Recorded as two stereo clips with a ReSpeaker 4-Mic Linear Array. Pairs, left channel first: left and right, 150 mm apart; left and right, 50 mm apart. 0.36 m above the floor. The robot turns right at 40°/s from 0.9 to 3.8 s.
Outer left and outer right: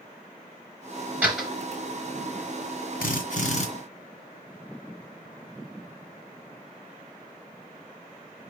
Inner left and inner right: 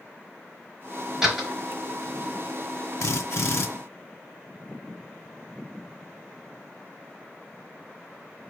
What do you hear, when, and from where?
1.2 s a door slam: 10° right (ahead or behind), 4 m; by 1.5 s centre (ahead or behind), 4 m
3.0 s a drill: 70° left (ahead or behind), 1.9 m; by 3.7 s 50° left (ahead or behind), 1.9 m